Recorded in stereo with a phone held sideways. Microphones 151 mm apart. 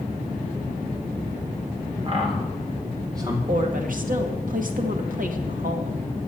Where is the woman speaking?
65° right (ahead or behind), 1.4 m.